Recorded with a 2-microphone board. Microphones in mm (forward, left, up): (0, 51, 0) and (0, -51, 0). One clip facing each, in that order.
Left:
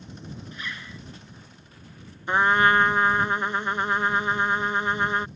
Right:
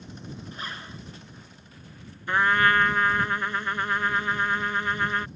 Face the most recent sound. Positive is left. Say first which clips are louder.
# left 2 dB
turn(degrees=20)  # may be behind; listen again after turning